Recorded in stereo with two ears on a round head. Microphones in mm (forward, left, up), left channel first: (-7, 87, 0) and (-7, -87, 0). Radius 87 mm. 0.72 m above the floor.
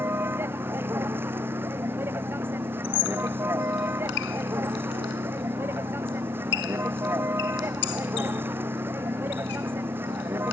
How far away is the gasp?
I don't hear a gasp.